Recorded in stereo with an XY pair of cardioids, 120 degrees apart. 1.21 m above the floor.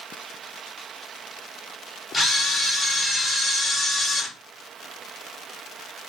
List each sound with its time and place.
2.1 s a camera shutter: 15° left, 4 m